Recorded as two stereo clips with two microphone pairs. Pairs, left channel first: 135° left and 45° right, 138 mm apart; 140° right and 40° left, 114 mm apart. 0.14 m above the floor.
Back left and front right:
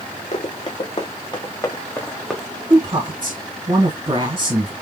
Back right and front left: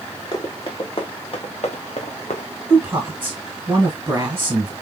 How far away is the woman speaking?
About 2 m.